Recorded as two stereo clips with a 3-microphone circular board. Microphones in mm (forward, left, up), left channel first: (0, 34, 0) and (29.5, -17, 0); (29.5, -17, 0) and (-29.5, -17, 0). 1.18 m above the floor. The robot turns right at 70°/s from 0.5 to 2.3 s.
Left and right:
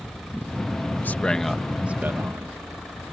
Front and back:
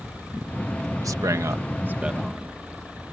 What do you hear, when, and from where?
1.0 s a man speaking: 175° left; by 2.6 s 95° right